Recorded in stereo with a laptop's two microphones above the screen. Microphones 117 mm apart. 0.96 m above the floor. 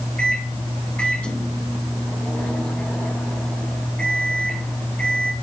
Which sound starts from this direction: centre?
A microwave, at 0.2 s.